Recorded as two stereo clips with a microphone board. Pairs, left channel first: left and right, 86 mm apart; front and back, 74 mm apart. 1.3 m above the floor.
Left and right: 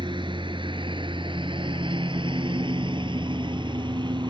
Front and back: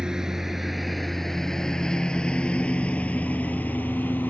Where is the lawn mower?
100° right; by 4.3 s 65° right.